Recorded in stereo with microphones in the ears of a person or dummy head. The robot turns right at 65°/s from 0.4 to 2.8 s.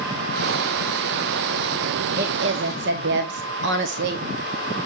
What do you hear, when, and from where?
2.1 s a woman speaking: 125° right, 0.8 m; by 4.2 s 80° right, 0.8 m